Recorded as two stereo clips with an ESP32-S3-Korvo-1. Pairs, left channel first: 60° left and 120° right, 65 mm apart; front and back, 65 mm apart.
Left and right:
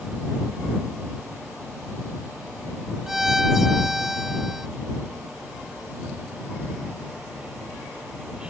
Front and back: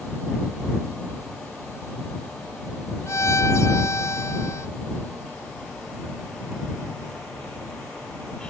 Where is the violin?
35° right.